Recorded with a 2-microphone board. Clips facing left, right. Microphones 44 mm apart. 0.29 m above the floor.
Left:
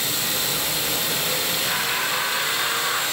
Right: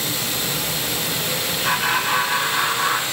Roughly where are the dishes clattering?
No dishes clattering in this recording.